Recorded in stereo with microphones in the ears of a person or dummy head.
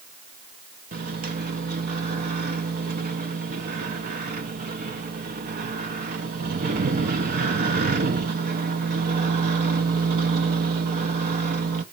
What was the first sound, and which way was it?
A microwave, 45° right (ahead or behind).